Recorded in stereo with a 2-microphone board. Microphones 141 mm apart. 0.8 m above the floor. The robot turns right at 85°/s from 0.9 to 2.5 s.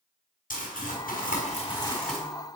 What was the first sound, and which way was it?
Crumpling, 75° left.